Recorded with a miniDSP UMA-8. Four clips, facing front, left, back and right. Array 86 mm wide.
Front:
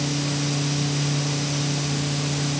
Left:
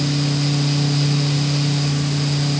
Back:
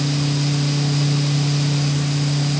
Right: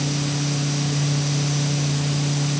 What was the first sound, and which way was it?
Only background noise.